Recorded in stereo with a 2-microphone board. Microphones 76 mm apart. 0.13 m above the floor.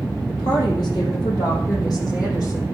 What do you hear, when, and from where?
0.3 s a woman speaking: 65° left (ahead or behind), 5.5 m; by 2.8 s 50° left (ahead or behind), 7 m